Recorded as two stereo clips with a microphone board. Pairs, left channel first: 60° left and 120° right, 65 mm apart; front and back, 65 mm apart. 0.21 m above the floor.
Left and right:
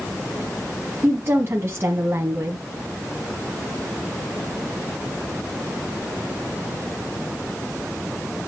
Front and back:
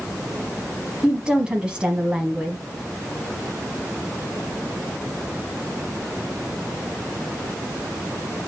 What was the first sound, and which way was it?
A woman speaking, 110° right.